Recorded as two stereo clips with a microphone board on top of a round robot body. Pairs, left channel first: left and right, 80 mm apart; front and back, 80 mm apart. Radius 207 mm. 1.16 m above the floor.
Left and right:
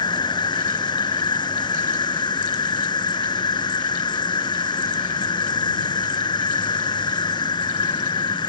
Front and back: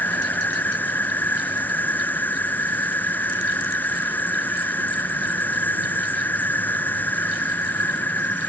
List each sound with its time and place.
0.0 s an insect: 65° left